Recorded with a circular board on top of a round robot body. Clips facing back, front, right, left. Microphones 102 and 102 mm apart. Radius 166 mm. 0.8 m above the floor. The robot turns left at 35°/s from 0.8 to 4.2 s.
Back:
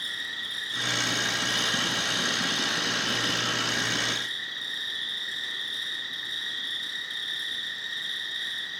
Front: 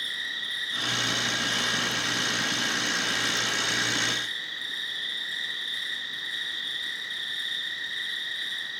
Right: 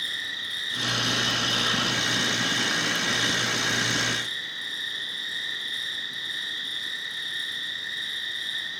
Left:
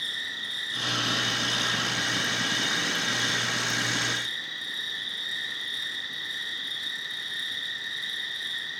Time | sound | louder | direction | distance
0.0 | an insect | front 1 dB, right 1 dB | 125° right | 1.9 m